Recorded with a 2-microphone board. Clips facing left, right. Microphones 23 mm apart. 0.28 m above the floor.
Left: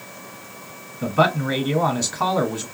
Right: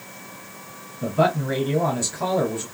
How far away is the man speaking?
About 1.1 m.